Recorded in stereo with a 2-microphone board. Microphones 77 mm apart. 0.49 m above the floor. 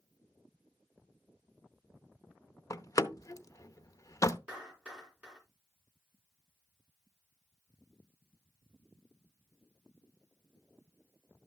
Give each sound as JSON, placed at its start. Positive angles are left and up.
{"t": 2.7, "sound": "a door slam", "side_deg": 45, "distance_m": 0.6}
{"t": 4.5, "sound": "a clap", "side_deg": -15, "distance_m": 4.5}